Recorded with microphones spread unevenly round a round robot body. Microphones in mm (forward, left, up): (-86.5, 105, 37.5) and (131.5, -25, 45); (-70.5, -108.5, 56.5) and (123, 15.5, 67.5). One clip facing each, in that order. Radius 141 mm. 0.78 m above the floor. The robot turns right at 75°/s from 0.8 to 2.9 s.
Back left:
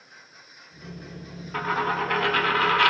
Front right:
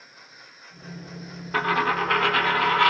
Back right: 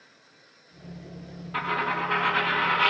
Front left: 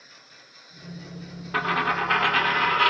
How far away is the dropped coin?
About 1.1 m.